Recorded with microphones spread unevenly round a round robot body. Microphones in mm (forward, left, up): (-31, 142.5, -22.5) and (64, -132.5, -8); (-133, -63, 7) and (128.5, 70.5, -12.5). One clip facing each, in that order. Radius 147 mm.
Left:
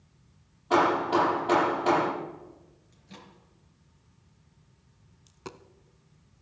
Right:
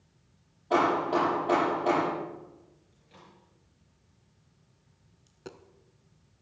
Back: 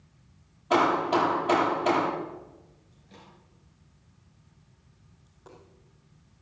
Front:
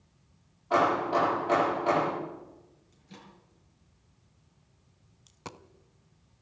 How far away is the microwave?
About 4.5 m.